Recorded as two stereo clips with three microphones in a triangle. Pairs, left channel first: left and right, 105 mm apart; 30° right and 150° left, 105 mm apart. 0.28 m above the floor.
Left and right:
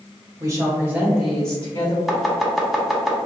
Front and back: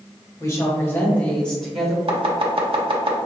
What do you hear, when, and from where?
0.4 s a woman speaking: 65° right, 1.3 m; by 2.0 s 65° left, 1.2 m
2.1 s chopping: straight behind, 0.7 m